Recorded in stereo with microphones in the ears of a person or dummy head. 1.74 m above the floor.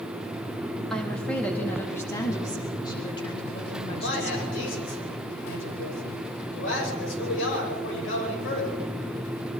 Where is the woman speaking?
5° left (ahead or behind), 3.5 m; by 4.6 s 40° left (ahead or behind), 4 m.